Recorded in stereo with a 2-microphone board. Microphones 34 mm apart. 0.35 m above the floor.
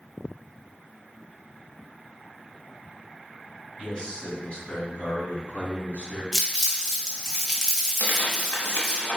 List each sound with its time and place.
3.8 s a man speaking: 15° left (ahead or behind), 1.6 m; by 6.2 s 55° left (ahead or behind), 2.5 m
6.3 s crumpling: 10° right (ahead or behind), 1.3 m
8.0 s tearing paper: 65° left (ahead or behind), 1.1 m